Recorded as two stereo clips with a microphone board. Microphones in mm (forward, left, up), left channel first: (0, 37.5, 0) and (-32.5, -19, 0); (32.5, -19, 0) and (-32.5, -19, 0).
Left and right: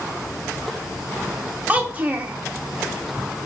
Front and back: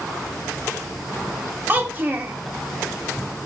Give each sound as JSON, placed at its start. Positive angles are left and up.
{"t": 1.7, "sound": "a child speaking", "azimuth_deg": -160, "distance_m": 0.6}